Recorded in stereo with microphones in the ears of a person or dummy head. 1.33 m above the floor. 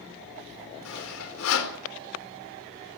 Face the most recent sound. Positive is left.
turn(degrees=90)